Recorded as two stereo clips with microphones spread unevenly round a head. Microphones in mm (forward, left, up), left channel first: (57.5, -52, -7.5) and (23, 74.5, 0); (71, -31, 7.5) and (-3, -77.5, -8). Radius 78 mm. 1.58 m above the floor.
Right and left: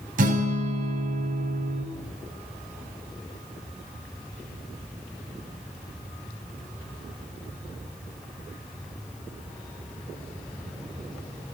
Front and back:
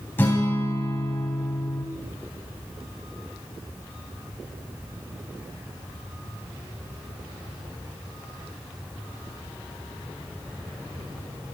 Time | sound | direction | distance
0.2 | a guitar | 100° left | 3 m